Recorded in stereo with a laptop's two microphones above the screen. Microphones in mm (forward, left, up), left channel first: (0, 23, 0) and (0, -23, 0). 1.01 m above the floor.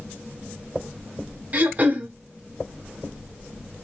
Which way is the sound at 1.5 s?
35° right (ahead or behind).